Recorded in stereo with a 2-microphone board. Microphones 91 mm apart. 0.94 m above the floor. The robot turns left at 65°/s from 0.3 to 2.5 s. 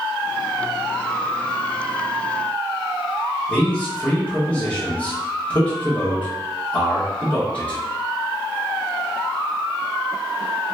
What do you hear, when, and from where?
3.5 s a man speaking: 15° left (ahead or behind), 1.2 m